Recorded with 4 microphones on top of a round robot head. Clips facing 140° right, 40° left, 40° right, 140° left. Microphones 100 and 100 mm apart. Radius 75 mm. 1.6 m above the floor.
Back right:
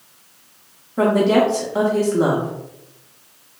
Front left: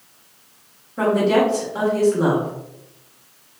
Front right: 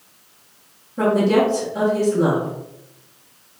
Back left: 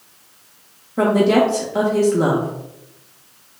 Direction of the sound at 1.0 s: 160° left.